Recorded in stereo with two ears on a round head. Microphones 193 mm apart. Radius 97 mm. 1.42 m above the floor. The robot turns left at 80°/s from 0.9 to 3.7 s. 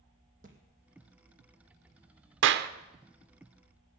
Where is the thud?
40° right (ahead or behind), 2.5 m.